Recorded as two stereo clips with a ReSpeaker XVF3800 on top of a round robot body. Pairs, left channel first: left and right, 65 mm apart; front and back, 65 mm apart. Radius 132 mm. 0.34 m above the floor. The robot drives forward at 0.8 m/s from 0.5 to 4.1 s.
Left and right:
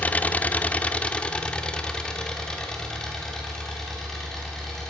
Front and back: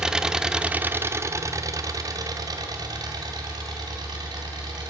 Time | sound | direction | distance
0.0 | an engine running | 115° left | 0.9 m